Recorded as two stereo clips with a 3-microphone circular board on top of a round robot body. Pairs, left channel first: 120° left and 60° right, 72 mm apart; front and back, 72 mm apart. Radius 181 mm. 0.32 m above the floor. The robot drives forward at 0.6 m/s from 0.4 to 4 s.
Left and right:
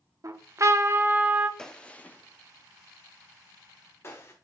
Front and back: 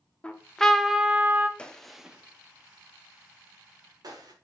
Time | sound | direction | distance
0.2 | a trumpet | 70° right | 0.9 m
1.6 | a gunshot | 50° left | 0.9 m